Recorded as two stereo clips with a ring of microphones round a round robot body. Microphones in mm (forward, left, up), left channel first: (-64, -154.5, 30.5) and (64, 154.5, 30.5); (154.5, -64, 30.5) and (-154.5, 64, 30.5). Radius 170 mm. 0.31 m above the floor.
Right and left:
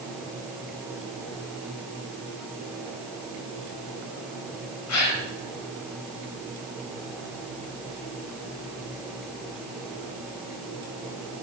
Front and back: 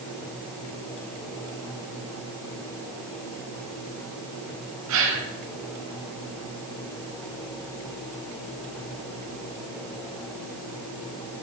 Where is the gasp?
155° right, 2.5 m.